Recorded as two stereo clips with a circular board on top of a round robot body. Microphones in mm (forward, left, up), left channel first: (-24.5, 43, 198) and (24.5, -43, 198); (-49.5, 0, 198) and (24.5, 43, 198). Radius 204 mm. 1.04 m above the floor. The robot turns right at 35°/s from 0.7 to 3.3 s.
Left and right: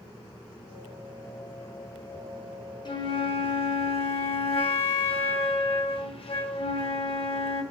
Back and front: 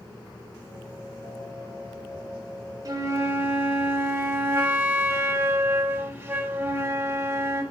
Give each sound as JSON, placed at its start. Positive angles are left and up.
{"t": 2.9, "sound": "a flute", "azimuth_deg": 80, "distance_m": 0.8}